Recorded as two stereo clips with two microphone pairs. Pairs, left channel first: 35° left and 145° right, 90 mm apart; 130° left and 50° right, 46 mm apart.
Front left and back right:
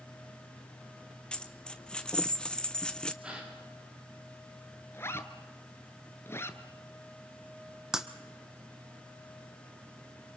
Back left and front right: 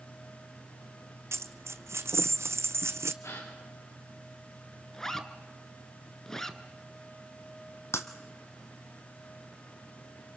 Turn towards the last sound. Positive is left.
turn(degrees=130)